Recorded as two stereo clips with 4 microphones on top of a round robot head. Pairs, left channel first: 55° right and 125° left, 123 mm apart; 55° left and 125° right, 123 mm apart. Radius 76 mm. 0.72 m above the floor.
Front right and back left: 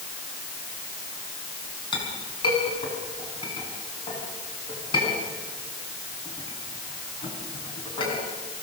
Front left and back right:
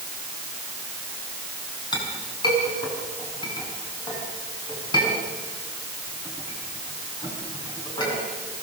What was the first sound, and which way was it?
A clink, straight ahead.